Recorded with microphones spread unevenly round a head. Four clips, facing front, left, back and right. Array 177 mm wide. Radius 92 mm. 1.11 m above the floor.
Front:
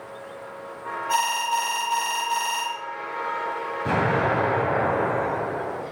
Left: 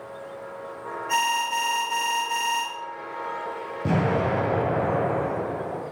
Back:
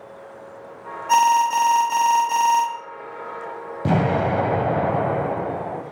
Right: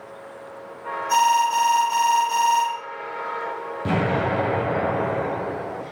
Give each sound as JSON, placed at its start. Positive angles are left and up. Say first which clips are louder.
{"t": 1.1, "sound": "an alarm", "louder": "right 7 dB, back 8 dB", "azimuth_deg": 180, "distance_m": 1.7}
{"t": 3.9, "sound": "an explosion", "louder": "right 1 dB, back 3 dB", "azimuth_deg": 165, "distance_m": 2.0}